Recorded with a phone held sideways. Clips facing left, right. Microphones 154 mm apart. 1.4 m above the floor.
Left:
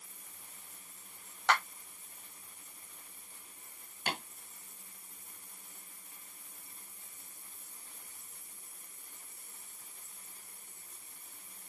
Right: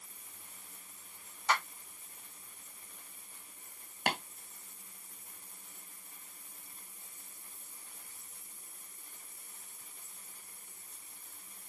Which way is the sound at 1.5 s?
85° left.